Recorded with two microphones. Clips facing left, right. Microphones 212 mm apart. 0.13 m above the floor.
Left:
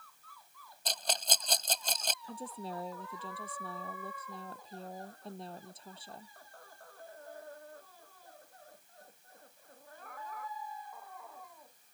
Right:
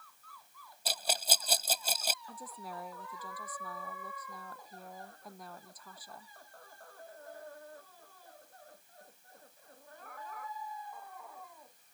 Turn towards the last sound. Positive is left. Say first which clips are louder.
# left 5 dB
turn(degrees=25)  # may be behind; listen again after turning